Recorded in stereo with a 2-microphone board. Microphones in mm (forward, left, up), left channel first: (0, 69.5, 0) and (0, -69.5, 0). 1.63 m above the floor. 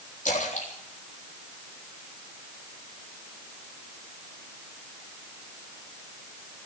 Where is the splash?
75° left (ahead or behind), 4 m.